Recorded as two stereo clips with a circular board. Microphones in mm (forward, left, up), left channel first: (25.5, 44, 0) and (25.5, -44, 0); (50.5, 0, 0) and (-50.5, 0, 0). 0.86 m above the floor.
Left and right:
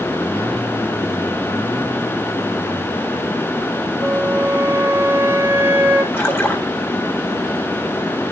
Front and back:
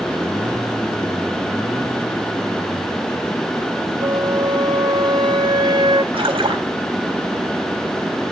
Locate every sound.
4.0 s a flute: 150° right, 1.5 m
6.1 s a splash: 150° left, 2 m